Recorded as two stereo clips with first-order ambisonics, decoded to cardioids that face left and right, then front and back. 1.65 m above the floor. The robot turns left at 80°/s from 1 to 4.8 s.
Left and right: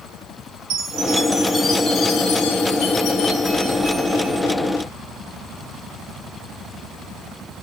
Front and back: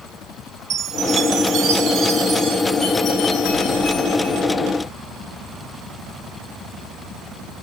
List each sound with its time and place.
0.7 s a chime: 130° right, 0.8 m; by 4.5 s 45° right, 0.8 m